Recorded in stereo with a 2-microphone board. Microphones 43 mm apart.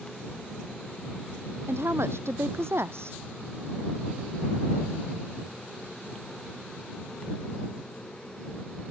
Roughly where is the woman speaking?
Right.